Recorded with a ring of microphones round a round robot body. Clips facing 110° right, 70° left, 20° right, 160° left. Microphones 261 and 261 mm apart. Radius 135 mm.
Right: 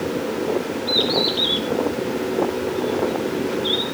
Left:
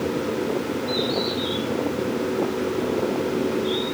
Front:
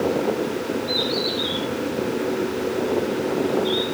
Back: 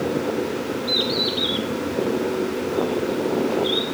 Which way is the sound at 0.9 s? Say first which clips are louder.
Right 2 dB, even; 160° right.